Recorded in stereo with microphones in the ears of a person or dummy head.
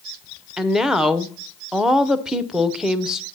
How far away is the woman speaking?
About 0.5 m.